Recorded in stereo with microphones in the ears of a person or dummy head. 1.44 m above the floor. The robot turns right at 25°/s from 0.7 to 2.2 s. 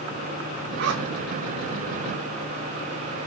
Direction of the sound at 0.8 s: 60° right (ahead or behind).